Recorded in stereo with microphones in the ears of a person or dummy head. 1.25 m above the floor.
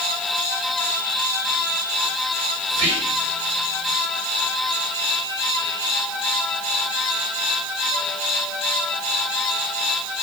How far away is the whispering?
About 1.5 m.